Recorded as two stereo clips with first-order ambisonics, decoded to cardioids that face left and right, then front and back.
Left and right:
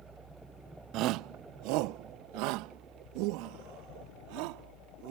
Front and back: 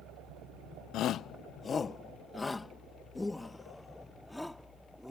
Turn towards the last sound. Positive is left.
turn(degrees=-85)